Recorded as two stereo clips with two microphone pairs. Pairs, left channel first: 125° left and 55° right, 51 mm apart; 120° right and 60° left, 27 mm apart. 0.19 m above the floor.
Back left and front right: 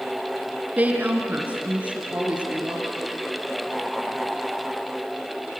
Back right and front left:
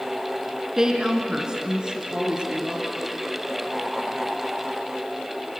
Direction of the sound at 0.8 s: 5° right.